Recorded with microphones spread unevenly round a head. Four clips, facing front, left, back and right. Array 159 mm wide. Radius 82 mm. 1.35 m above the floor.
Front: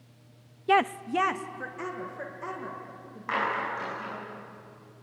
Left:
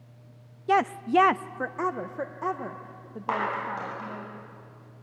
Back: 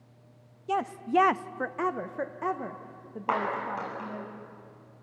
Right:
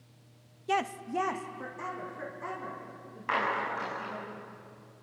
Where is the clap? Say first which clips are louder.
Left 2 dB, even; 145° left, 9 m.